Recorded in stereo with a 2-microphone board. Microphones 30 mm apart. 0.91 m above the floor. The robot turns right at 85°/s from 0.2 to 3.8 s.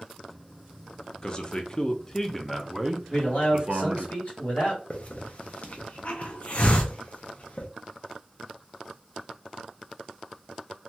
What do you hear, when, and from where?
1.2 s a man speaking: 60° left, 0.5 m; by 4.1 s 80° right, 0.5 m
3.1 s a man speaking: 30° left, 1.5 m; by 4.8 s 90° left, 1.5 m
4.9 s a hiss: 45° left (ahead or behind), 0.6 m